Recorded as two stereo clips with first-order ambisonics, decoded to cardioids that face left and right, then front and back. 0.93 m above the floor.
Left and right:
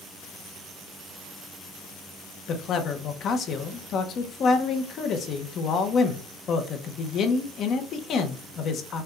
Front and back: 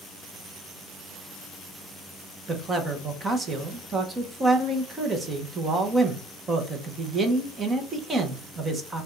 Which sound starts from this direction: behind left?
A man speaking, at 2.5 s.